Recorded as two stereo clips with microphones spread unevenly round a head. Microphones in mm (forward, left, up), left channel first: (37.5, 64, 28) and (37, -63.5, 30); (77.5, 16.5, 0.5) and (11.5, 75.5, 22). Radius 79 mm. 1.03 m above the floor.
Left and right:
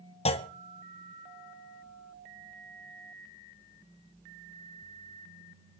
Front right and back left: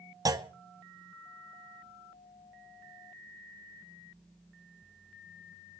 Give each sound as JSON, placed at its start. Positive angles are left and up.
{"t": 0.2, "sound": "a clunk", "azimuth_deg": 95, "distance_m": 1.0}